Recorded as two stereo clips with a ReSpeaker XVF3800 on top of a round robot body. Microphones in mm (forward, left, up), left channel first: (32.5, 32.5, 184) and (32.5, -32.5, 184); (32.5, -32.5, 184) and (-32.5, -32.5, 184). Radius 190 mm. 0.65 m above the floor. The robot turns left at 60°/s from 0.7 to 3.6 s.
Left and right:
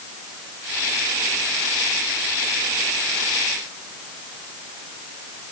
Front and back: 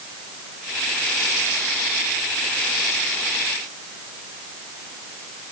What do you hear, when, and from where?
Only background noise.